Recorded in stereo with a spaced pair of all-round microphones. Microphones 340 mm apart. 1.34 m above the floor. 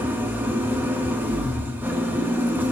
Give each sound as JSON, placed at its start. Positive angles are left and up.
{"t": 0.0, "sound": "an engine running", "side_deg": -5, "distance_m": 1.1}